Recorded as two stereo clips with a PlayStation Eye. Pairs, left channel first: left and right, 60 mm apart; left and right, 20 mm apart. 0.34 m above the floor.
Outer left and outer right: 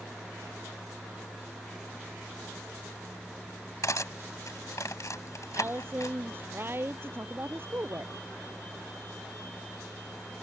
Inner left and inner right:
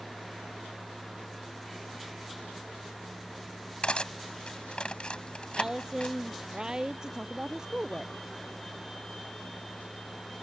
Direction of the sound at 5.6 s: 40° right (ahead or behind).